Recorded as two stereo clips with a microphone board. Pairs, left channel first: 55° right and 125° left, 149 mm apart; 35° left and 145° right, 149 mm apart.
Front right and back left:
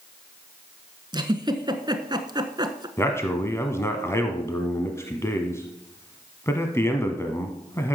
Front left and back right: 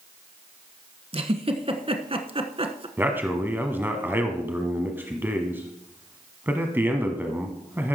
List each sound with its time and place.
1.1 s a giggle: straight behind, 1.2 m
3.0 s a man speaking: 90° right, 1.2 m